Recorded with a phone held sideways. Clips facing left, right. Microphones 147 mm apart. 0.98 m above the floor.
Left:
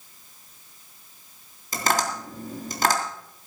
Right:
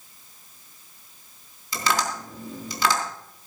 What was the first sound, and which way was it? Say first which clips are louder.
Tapping: left 1 dB; 45° left (ahead or behind).